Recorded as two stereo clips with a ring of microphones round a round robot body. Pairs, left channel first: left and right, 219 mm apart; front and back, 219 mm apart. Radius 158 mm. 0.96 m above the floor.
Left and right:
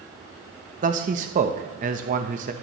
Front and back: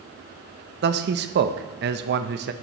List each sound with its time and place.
0.8 s a man speaking: 145° right, 0.8 m